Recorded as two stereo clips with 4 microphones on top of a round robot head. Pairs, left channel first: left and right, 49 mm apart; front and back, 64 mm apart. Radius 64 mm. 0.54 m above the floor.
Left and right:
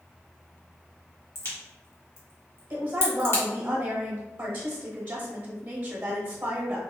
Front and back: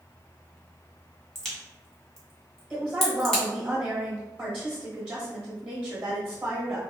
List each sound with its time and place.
1.4 s a crack: 80° left, 1.6 m
2.7 s a woman speaking: 110° right, 0.9 m